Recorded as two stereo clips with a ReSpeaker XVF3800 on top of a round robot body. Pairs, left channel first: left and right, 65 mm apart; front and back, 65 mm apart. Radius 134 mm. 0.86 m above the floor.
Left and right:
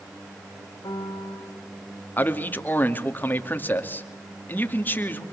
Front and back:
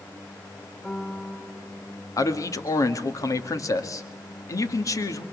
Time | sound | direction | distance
0.8 | a piano | 70° left | 5.5 m
2.2 | a man speaking | 30° left | 2 m